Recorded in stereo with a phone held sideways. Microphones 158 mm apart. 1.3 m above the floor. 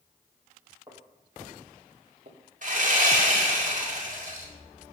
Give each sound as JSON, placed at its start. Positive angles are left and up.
{"t": 0.9, "sound": "footsteps", "side_deg": -20, "distance_m": 2.5}
{"t": 2.6, "sound": "sawing", "side_deg": -55, "distance_m": 2.0}